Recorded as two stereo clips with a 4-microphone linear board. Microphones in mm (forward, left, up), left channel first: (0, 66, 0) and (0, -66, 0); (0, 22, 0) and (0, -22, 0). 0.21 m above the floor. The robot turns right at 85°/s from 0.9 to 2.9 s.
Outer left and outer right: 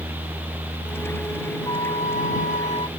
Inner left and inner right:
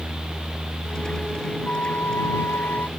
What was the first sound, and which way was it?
A flute, 30° left.